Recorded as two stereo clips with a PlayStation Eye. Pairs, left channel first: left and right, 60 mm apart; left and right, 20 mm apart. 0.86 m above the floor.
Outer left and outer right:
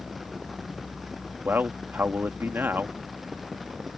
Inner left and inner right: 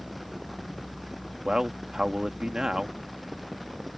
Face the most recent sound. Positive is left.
turn(degrees=-35)  # may be behind; listen again after turning